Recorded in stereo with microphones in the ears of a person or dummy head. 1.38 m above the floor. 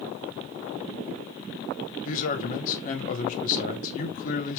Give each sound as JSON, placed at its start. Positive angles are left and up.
{"t": 2.0, "sound": "a man speaking", "side_deg": 50, "distance_m": 1.5}